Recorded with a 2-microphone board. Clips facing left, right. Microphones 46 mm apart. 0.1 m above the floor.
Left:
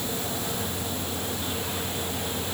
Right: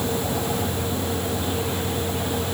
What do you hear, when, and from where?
Only background noise.